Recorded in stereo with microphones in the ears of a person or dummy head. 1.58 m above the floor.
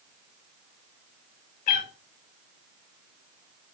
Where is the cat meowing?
35° left (ahead or behind), 1.3 m.